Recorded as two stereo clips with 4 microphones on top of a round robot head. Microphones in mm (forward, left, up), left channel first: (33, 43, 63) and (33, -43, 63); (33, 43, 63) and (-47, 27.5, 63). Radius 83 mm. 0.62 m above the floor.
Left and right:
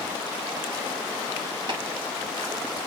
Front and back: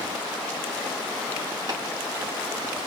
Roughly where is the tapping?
Behind right.